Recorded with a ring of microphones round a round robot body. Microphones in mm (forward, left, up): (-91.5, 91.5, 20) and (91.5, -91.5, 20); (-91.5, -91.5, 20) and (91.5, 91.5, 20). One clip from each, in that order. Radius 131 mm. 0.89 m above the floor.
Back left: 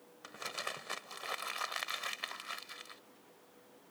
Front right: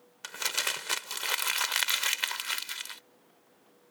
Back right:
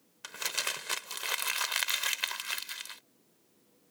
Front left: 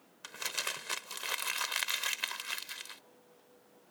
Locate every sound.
0.2 s crumpling: 50° right